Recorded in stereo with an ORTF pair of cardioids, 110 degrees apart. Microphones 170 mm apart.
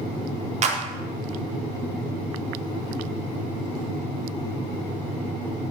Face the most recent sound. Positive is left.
turn(degrees=-40)